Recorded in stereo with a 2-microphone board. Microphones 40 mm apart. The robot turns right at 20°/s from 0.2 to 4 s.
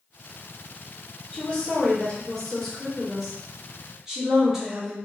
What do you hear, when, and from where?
1.3 s a woman speaking: 140° left, 1.2 m; by 5.0 s 165° right, 1.2 m